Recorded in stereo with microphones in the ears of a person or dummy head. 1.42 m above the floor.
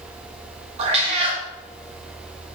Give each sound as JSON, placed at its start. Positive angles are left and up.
{"t": 0.8, "sound": "a cat meowing", "side_deg": -35, "distance_m": 1.0}